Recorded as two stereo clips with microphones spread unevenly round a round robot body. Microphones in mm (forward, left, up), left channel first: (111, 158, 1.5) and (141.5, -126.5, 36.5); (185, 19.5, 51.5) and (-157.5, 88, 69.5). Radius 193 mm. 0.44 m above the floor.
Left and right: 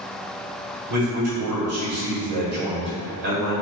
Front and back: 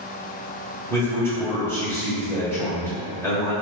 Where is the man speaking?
95° right, 1.5 m.